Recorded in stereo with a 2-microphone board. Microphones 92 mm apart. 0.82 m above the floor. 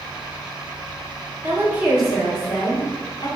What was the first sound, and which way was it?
A woman speaking, 25° right (ahead or behind).